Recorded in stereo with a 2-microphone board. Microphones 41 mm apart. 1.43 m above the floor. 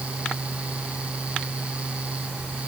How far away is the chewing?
I don't hear chewing.